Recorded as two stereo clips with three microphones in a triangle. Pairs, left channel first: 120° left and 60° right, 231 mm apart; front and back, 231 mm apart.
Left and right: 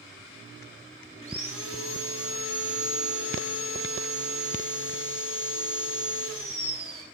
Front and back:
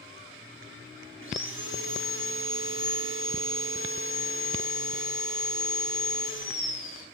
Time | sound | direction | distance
1.2 | sawing | 145° left | 3.5 m